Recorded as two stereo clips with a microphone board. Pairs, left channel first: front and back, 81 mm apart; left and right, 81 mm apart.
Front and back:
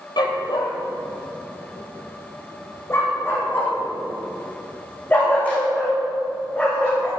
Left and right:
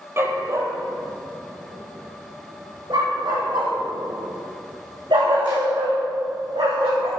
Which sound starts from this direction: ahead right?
A dog barking, at 0.2 s.